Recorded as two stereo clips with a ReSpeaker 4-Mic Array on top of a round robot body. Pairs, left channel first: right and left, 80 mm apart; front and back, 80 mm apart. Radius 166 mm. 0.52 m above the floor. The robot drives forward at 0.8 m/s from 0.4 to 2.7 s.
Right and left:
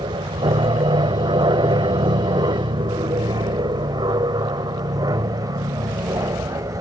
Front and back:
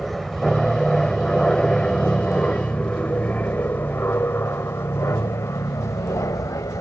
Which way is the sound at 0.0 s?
90° left.